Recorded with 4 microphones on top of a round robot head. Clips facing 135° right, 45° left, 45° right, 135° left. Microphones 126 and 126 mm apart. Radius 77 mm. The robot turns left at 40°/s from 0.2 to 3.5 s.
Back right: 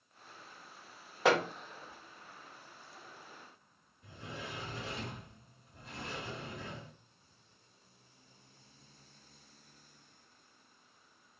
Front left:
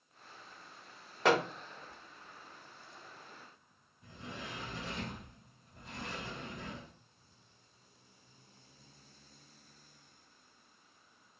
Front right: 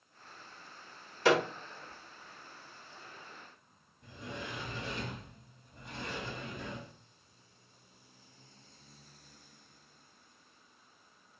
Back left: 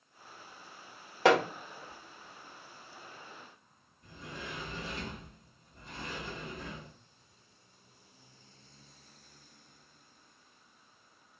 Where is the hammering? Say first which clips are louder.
Even, back left 3 dB; 135° left, 1.0 m; by 1.4 s 130° left, 1.0 m.